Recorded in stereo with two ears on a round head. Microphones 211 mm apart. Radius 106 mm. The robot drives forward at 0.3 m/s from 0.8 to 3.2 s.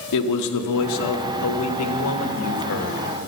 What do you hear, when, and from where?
0.1 s a man speaking: 85° left, 0.9 m; by 3.0 s 55° left (ahead or behind), 1.1 m